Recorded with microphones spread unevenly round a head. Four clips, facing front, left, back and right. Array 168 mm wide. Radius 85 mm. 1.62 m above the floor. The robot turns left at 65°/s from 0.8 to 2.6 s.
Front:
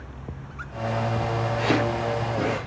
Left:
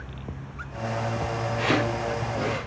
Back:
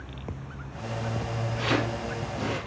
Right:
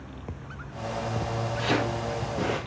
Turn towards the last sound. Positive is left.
turn(degrees=-30)